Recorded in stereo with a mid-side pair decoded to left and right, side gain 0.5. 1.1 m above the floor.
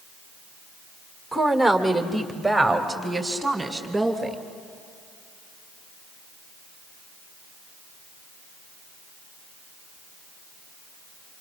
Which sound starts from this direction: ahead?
A woman speaking, at 1.3 s.